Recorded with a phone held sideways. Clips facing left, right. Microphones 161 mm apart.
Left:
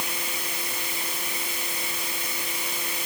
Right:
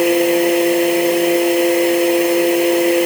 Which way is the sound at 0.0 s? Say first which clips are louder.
Right 24 dB; 70° right (ahead or behind).